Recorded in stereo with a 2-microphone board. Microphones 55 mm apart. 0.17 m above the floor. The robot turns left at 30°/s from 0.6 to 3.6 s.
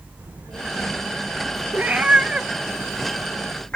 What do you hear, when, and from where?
0.2 s a child speaking: 100° right, 8.5 m; by 1.6 s 130° right, 8.5 m
1.7 s a cat meowing: 35° right (ahead or behind), 0.8 m; by 3.8 s 20° left (ahead or behind), 0.8 m